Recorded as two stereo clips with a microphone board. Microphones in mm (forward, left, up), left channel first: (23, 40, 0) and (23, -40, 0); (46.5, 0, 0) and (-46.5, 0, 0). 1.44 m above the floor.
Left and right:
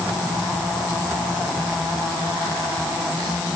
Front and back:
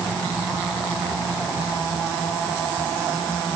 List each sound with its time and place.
Only background noise.